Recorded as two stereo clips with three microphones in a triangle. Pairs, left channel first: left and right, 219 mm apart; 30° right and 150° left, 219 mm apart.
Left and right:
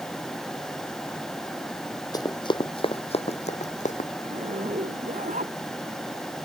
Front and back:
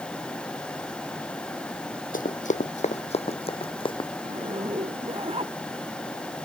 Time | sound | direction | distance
2.1 | running footsteps | 20° left | ?
4.2 | a zipper | 145° right | ?